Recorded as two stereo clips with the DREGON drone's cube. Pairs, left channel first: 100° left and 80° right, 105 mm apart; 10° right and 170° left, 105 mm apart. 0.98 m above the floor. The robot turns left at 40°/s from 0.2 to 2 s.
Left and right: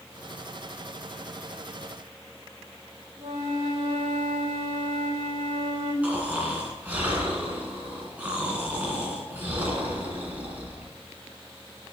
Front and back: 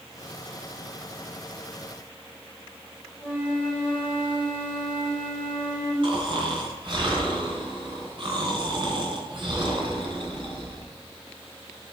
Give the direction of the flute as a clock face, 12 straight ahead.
4 o'clock.